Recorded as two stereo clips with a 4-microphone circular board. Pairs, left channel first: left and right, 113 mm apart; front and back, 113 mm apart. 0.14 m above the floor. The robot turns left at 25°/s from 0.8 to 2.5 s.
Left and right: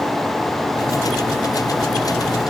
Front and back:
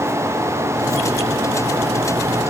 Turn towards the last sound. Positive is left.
No sound to turn to.